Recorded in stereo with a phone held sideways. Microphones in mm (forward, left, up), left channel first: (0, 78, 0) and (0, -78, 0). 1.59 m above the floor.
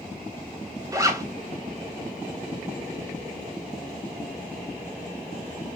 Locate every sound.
0.9 s a zipper: 20° right (ahead or behind), 0.9 m